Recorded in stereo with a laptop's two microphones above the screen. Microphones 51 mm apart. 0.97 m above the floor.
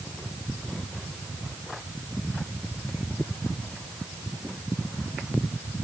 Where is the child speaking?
No child speaking in this recording.